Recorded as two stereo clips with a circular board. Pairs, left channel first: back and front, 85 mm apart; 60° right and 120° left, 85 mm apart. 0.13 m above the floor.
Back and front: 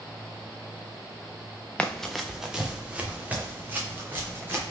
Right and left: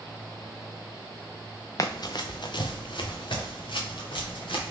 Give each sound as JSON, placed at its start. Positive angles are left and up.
{"t": 1.8, "sound": "running footsteps", "azimuth_deg": -105, "distance_m": 0.6}